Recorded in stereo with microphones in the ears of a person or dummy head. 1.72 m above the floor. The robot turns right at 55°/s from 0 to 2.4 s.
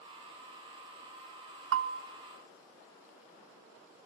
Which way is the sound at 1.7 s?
60° right (ahead or behind).